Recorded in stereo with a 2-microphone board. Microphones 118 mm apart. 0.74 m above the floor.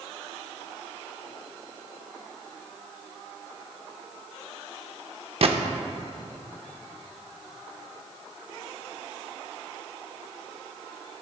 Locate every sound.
5.4 s a gunshot: 55° right (ahead or behind), 0.5 m